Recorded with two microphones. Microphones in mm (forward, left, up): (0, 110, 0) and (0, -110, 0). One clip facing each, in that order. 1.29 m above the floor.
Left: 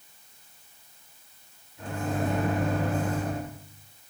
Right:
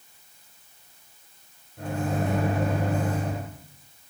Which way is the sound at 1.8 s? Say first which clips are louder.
Right 2 dB; 65° right (ahead or behind).